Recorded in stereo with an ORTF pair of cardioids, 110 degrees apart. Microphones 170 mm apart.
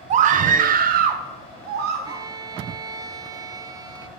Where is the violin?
20° right, 0.5 m.